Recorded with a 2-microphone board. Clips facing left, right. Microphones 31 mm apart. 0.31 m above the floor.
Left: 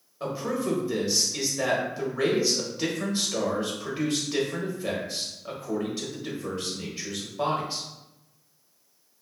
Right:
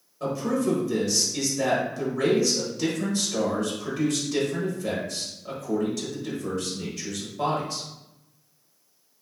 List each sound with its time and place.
0.2 s a man speaking: 20° left (ahead or behind), 0.9 m